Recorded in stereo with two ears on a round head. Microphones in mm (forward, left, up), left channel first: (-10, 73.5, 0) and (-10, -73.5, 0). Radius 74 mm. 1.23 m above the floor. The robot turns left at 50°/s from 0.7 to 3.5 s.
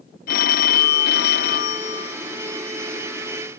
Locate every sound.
0.3 s a phone ringing: 110° left; by 2.2 s 35° left